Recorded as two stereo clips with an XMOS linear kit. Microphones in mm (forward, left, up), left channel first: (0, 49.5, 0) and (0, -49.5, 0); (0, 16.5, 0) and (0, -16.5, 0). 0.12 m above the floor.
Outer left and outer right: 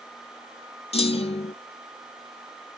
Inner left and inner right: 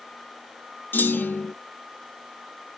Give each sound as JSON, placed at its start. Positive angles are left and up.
{"t": 0.9, "sound": "a clunk", "side_deg": 80, "distance_m": 0.6}